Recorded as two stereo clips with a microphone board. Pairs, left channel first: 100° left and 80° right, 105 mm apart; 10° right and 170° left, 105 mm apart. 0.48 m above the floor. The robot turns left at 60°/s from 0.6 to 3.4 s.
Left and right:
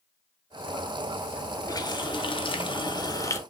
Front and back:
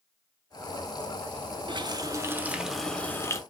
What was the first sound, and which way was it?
A running tap, 145° left.